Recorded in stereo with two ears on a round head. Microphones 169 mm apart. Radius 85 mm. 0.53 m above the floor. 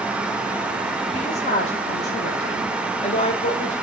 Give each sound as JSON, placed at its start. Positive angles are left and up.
{"t": 1.1, "sound": "a woman speaking", "side_deg": 30, "distance_m": 2.0}